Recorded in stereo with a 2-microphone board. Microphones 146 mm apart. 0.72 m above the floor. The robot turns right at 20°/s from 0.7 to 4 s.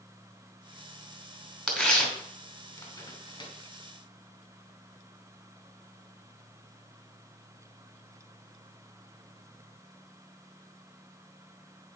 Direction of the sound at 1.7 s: Centre (ahead or behind).